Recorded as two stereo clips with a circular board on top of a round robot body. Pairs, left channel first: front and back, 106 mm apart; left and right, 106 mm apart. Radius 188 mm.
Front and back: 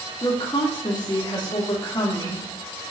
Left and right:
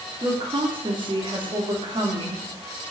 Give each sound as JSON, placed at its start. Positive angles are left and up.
{"t": 0.2, "sound": "a woman speaking", "azimuth_deg": -50, "distance_m": 2.5}